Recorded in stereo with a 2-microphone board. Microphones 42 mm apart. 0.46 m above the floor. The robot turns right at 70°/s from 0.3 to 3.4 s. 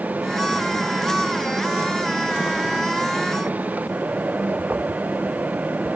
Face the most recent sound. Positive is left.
No sound to turn to.